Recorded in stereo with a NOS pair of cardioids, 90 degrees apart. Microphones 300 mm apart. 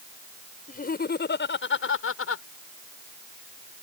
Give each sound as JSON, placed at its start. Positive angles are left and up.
{"t": 0.7, "sound": "laughter", "azimuth_deg": 30}